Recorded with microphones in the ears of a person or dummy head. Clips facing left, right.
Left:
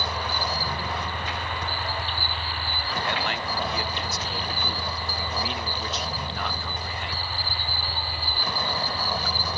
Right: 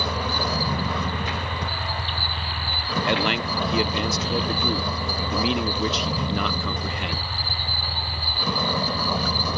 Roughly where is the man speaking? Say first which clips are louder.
Right 7 dB; right.